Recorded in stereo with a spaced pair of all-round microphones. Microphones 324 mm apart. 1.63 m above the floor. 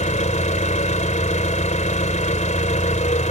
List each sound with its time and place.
0.0 s an engine running: 25° left (ahead or behind)